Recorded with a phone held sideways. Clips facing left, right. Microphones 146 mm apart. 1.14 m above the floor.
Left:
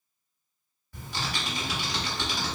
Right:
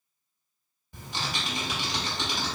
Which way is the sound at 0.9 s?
25° right (ahead or behind).